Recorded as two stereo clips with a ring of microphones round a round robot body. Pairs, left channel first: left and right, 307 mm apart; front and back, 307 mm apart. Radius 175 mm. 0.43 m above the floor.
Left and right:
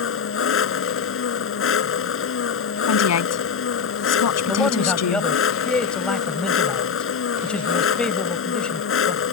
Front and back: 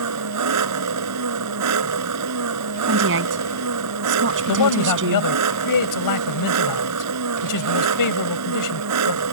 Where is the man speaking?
5° left.